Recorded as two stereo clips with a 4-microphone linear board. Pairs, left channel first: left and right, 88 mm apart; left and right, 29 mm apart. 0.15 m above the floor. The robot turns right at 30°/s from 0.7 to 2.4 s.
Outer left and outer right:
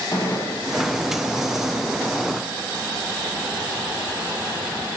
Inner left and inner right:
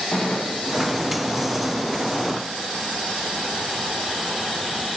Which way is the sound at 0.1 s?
35° left (ahead or behind).